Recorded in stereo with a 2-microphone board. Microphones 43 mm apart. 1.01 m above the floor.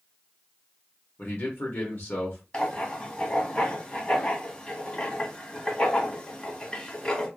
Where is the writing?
25° left (ahead or behind), 1.1 m.